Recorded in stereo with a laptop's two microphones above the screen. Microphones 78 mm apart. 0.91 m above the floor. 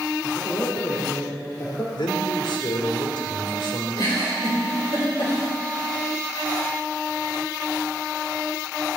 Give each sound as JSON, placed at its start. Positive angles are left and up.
{"t": 0.2, "sound": "a man speaking", "side_deg": 50, "distance_m": 4.0}
{"t": 1.9, "sound": "a man speaking", "side_deg": 85, "distance_m": 2.5}
{"t": 4.0, "sound": "a giggle", "side_deg": 75, "distance_m": 3.5}